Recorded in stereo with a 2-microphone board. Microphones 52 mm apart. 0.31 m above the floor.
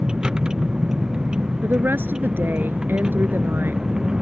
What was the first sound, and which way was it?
A vehicle, 15° right (ahead or behind).